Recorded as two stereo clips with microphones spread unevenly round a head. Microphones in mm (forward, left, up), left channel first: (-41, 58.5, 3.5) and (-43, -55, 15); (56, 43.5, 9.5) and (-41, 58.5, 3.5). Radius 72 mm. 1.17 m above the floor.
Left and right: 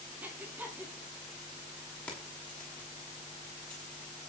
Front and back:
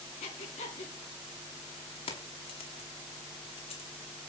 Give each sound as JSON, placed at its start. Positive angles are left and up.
{"t": 0.2, "sound": "breathing", "azimuth_deg": -15, "distance_m": 3.5}
{"t": 2.1, "sound": "keys jangling", "azimuth_deg": 10, "distance_m": 6.0}